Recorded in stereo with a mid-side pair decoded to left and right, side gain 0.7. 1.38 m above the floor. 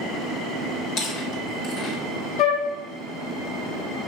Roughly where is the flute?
Ahead left.